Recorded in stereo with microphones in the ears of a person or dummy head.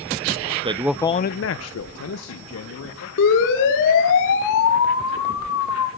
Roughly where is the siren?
Left.